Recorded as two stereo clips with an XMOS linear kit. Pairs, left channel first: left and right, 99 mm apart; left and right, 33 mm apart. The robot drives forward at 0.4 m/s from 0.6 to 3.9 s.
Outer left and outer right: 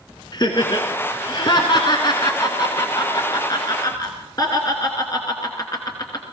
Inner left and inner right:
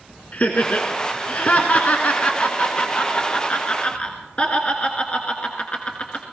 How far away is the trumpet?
I don't hear a trumpet.